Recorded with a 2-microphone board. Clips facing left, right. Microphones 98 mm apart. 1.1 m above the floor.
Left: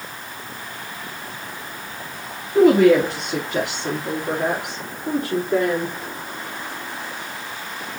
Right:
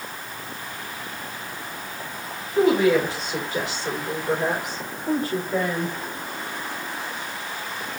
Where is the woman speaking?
65° left (ahead or behind), 2.5 m; by 5.9 s 80° left, 5 m.